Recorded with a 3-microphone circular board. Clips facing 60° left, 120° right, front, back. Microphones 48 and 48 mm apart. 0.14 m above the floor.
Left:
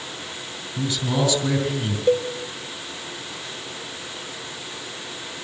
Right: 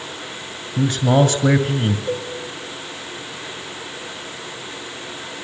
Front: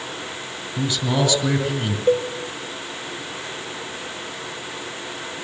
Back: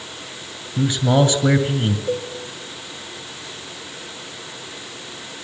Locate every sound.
0.8 s a man speaking: 120° right, 2 m
2.1 s a cowbell: 25° left, 2.5 m